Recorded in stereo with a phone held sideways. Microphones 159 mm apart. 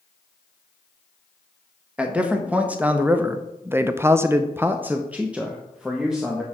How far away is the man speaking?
About 1.4 m.